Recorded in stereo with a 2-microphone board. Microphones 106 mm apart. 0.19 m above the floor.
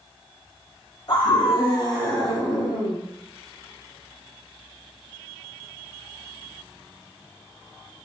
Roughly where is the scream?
Left.